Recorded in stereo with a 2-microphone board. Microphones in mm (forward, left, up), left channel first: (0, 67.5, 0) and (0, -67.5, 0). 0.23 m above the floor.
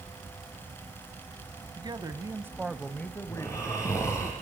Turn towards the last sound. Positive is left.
turn(degrees=20)  # may be behind; listen again after turning